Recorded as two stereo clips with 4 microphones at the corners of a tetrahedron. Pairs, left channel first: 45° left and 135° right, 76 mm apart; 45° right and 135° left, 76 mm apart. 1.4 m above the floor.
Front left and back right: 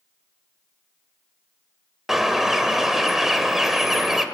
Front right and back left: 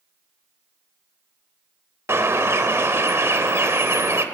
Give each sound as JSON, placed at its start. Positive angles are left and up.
{"t": 2.1, "sound": "a bird", "azimuth_deg": 140, "distance_m": 1.3}